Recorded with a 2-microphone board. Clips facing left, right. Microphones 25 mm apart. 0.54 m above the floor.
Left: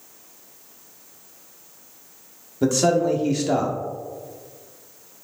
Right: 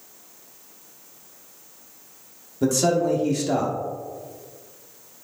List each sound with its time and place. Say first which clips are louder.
2.6 s a man speaking: left 1 dB; 15° left (ahead or behind), 1.0 m